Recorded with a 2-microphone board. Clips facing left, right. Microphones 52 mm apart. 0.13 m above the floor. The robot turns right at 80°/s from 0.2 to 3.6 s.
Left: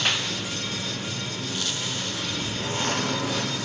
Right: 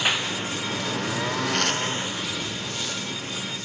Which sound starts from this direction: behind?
A lawn mower, at 0.0 s.